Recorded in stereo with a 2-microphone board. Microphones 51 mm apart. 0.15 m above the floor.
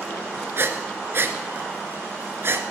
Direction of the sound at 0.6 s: 50° right (ahead or behind).